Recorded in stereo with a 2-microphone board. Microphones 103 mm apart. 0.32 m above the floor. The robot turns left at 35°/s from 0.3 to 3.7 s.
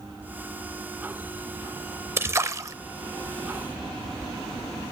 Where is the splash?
25° right (ahead or behind), 0.7 m; by 2.8 s 30° right (ahead or behind), 0.7 m.